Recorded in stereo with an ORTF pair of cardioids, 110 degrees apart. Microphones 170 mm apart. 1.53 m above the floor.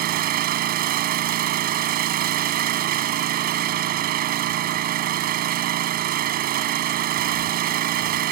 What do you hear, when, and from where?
0.0 s an engine running: 65° right